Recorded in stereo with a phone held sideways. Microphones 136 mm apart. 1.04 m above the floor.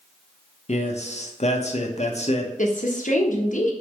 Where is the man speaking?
55° left (ahead or behind), 1.2 m.